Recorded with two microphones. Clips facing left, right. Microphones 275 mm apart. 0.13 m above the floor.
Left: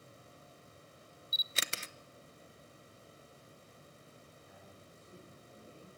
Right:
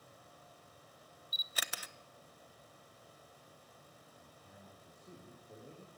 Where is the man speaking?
55° right (ahead or behind), 9.5 m.